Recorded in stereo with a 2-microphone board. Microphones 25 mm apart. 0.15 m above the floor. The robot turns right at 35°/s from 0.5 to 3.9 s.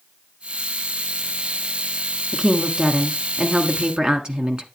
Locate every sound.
2.3 s a woman speaking: 130° right, 1.4 m; by 4.7 s 75° right, 1.4 m